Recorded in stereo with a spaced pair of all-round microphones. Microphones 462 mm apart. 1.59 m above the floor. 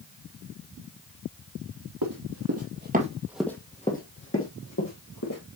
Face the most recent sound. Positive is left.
turn(degrees=45)  # may be behind; listen again after turning